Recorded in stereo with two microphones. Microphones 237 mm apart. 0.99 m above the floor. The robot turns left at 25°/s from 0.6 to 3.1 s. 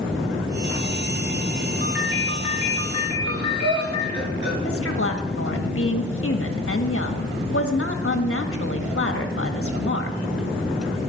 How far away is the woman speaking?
About 1.6 m.